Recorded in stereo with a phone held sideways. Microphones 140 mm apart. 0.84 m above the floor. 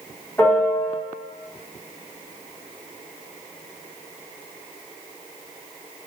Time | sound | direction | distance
0.4 | a piano | 15° left (ahead or behind) | 1.0 m